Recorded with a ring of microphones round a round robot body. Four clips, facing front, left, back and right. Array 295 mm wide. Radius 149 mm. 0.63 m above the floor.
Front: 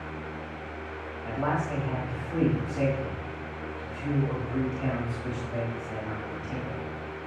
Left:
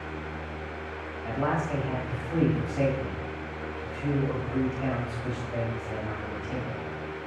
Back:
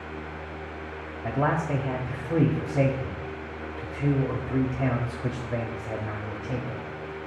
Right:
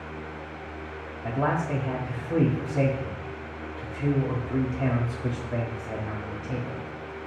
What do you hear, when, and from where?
1.2 s a man speaking: 145° right, 1.0 m